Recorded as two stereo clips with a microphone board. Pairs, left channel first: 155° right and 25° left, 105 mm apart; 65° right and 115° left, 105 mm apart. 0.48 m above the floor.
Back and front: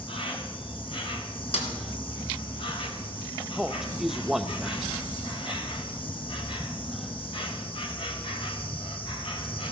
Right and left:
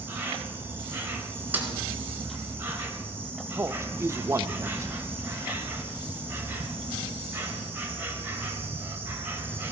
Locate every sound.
0.0 s an insect: straight behind, 2.5 m
1.5 s a snare drum: 175° right, 3 m
3.6 s a man speaking: 105° left, 0.7 m